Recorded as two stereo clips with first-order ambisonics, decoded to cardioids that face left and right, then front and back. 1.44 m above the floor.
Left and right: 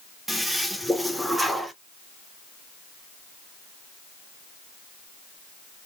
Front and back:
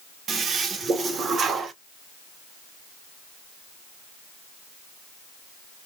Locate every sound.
0.3 s a toilet flushing: 175° right, 0.6 m